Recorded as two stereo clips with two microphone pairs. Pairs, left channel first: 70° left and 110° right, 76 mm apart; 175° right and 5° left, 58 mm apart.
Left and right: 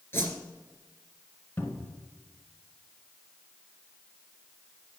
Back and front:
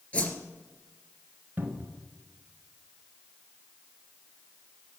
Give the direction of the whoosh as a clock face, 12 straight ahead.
8 o'clock.